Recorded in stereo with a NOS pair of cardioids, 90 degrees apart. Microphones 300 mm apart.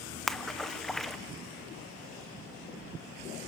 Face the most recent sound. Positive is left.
turn(degrees=0)